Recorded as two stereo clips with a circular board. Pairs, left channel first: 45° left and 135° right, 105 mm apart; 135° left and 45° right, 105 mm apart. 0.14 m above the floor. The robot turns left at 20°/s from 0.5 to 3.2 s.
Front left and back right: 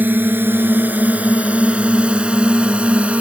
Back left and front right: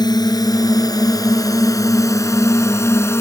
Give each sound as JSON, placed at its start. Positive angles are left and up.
{"t": 0.0, "sound": "a drone", "azimuth_deg": 160}